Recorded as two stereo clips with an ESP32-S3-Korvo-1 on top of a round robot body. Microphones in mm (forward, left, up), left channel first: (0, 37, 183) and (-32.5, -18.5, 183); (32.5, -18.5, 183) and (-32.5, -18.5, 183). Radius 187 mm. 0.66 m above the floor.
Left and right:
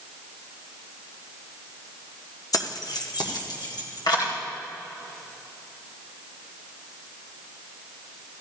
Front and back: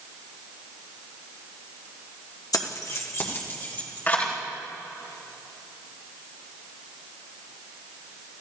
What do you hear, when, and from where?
2.5 s keys jangling: 30° left, 1.1 m; by 4.3 s 65° left, 3 m